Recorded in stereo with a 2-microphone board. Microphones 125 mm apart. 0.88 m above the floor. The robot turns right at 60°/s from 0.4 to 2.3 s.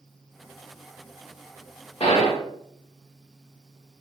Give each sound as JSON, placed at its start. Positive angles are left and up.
{"t": 2.0, "sound": "a gunshot", "side_deg": 50, "distance_m": 0.9}